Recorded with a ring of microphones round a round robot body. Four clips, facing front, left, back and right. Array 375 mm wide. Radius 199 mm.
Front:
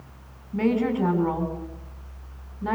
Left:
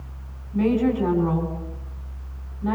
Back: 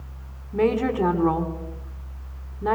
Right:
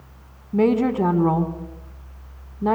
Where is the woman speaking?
105° right, 3.5 m.